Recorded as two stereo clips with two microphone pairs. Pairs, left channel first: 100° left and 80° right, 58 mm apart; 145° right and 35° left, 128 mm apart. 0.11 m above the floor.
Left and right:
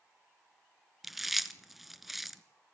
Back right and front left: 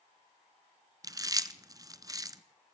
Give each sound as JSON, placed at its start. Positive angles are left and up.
{"t": 1.0, "sound": "chewing", "azimuth_deg": 5, "distance_m": 0.8}